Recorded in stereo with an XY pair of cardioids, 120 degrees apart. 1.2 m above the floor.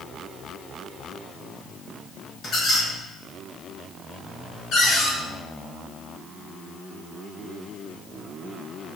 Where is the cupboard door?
65° left, 1.0 m.